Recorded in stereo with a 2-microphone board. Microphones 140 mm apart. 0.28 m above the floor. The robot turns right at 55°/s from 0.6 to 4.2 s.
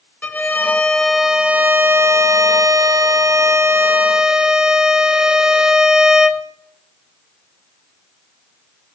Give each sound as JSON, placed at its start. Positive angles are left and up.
{"t": 0.2, "sound": "a violin", "side_deg": 10, "distance_m": 0.5}